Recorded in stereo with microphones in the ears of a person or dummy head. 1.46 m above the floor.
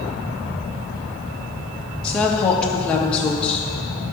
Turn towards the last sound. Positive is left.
turn(degrees=15)  # may be behind; listen again after turning